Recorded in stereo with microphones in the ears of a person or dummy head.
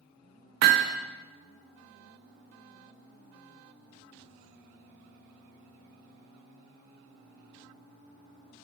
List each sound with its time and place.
0.6 s hammering: 60° right (ahead or behind), 1.0 m